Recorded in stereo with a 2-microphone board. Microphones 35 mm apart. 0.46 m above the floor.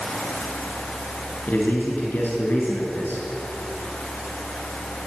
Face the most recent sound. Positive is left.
turn(degrees=70)  # may be behind; listen again after turning